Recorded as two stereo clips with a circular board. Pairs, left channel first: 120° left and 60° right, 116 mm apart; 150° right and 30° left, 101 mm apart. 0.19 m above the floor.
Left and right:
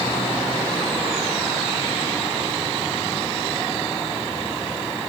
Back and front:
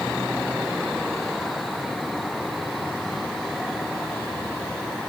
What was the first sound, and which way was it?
Only background noise.